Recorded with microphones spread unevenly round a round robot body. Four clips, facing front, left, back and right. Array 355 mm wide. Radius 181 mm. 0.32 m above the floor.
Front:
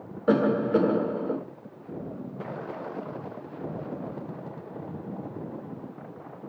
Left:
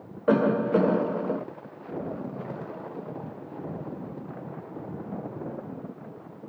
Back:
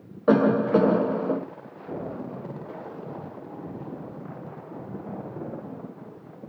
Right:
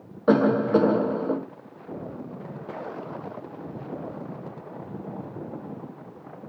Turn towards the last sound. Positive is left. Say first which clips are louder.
# right 3 dB, back 3 dB
turn(degrees=-150)